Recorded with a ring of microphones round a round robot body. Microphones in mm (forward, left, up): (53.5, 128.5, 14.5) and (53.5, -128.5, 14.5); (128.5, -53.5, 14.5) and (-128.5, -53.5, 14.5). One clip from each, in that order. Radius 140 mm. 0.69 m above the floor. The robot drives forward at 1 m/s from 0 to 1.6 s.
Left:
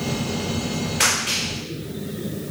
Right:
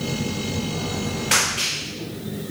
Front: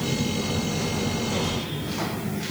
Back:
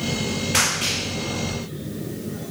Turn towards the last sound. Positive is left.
No sound to turn to.